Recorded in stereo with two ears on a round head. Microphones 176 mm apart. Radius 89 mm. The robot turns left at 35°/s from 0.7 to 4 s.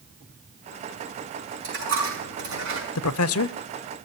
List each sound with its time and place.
1.6 s a dropped coin: 55° right (ahead or behind), 6 m; by 2.9 s 75° right (ahead or behind), 6 m
3.0 s a man speaking: 85° left, 0.6 m; by 3.6 s 65° left (ahead or behind), 0.6 m